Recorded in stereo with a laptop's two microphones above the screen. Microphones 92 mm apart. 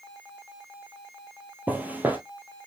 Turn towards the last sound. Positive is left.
turn(degrees=-20)  # may be behind; listen again after turning